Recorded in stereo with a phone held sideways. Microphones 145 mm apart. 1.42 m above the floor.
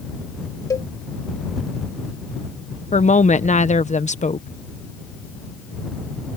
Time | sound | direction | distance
0.7 | a cowbell | 25° left (ahead or behind) | ?
2.9 | a woman speaking | 55° left (ahead or behind) | ?